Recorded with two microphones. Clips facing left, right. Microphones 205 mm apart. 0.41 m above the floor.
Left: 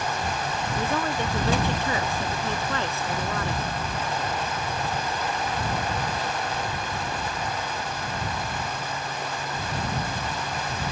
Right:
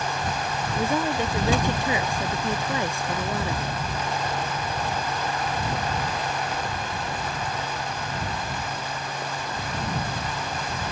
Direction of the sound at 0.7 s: 15° right (ahead or behind).